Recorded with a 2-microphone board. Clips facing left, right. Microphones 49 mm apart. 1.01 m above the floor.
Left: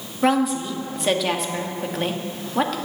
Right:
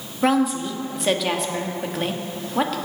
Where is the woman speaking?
Centre (ahead or behind), 1.3 m.